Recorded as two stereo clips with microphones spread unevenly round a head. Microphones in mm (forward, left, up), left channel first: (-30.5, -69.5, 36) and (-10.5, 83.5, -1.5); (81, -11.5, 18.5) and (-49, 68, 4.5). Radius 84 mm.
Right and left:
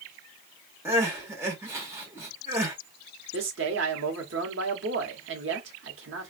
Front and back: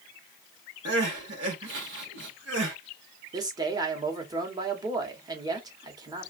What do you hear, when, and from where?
0.8 s crying: 160° left, 1.1 m
3.3 s a man speaking: 85° left, 0.9 m